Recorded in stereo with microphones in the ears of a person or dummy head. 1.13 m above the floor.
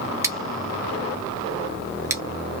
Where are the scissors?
20° right (ahead or behind), 0.6 m.